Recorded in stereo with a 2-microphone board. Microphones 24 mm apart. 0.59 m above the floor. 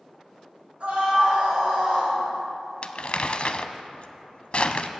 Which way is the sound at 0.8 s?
60° right (ahead or behind).